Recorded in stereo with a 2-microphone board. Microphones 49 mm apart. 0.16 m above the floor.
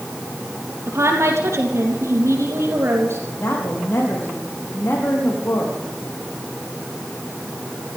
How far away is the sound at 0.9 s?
About 5 m.